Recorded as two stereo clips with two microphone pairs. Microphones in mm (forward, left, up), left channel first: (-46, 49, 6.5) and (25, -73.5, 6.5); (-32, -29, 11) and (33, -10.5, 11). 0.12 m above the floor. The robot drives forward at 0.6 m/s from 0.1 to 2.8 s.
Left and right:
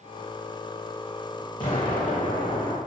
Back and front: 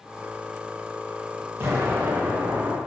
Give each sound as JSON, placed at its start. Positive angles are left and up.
{"t": 1.6, "sound": "an explosion", "azimuth_deg": 65, "distance_m": 2.5}